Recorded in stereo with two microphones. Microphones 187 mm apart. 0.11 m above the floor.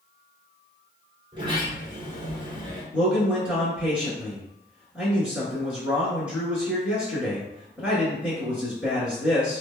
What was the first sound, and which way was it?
A sliding door, 25° right (ahead or behind).